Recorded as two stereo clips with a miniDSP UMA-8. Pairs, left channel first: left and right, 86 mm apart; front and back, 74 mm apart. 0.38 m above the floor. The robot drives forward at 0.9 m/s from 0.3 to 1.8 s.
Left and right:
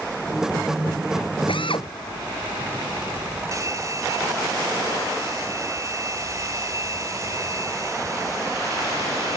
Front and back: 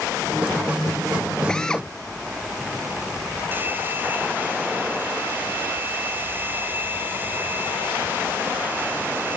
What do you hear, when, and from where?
1.5 s a drill: 80° left
3.5 s a hair dryer: 125° right